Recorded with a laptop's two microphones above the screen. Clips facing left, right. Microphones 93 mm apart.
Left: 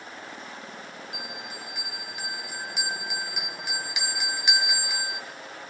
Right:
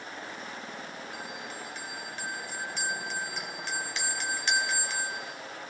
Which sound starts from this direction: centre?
A bell, at 1.1 s.